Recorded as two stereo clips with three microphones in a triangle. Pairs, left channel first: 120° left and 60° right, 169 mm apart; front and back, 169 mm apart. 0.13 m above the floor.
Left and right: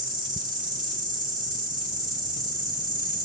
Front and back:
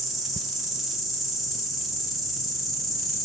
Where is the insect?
90° right, 2.0 m.